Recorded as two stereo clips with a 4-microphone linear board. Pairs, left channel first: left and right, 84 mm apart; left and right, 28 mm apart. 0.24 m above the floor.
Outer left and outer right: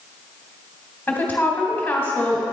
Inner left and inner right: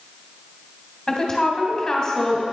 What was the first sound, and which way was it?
A woman speaking, 20° left (ahead or behind).